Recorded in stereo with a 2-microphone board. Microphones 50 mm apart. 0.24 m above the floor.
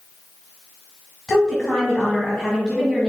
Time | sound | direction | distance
1.3 | a woman speaking | 15° left (ahead or behind) | 1.7 m